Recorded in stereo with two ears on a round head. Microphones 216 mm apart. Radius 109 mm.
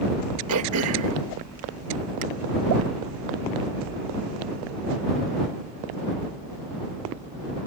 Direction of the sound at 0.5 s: 70° right (ahead or behind).